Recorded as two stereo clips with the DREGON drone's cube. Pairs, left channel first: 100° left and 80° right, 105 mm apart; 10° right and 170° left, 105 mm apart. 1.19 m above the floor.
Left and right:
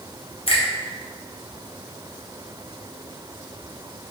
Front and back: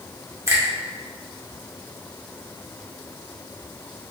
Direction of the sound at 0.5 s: 110° left.